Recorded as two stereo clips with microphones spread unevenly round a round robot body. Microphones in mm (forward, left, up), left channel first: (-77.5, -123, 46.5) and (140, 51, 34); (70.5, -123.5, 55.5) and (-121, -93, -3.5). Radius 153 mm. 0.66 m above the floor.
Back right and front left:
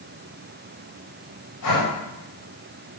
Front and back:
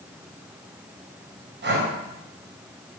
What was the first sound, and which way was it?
Breathing, 170° right.